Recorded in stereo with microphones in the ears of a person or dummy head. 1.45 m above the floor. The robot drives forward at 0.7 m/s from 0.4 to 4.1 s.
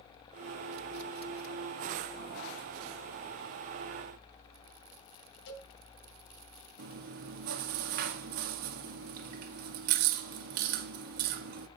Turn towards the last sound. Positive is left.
turn(degrees=-55)  # may be behind; listen again after turning